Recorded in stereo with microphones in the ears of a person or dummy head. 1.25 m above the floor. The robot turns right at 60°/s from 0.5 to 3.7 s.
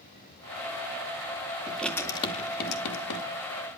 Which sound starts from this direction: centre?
Writing, at 1.7 s.